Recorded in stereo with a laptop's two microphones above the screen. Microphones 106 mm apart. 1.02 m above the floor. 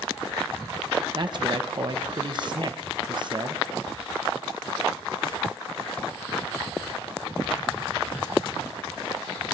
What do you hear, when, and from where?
1.1 s a man speaking: 45° right (ahead or behind), 0.9 m